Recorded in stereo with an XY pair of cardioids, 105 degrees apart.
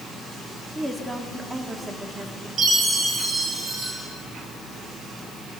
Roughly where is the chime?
Ahead right.